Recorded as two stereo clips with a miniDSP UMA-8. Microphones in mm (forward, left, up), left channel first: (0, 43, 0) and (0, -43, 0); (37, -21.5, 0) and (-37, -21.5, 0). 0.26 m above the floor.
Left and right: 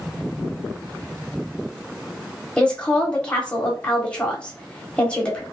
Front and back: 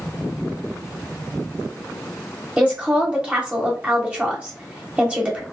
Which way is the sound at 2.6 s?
145° left.